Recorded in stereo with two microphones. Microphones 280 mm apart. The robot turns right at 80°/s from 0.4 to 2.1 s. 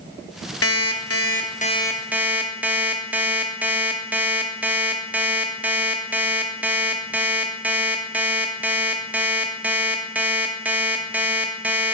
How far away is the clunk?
I don't hear a clunk.